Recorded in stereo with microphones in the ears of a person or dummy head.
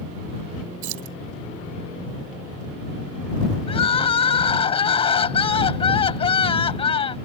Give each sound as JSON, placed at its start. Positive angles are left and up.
{"t": 0.8, "sound": "keys jangling", "side_deg": -80}
{"t": 3.7, "sound": "crying", "side_deg": 30}